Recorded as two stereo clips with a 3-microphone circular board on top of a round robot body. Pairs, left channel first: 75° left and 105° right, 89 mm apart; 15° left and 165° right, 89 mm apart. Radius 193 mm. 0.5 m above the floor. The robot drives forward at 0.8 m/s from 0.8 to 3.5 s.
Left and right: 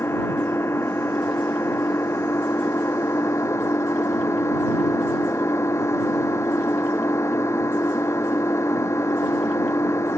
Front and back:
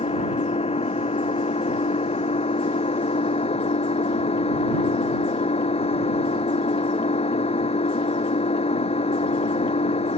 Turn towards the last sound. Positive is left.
turn(degrees=15)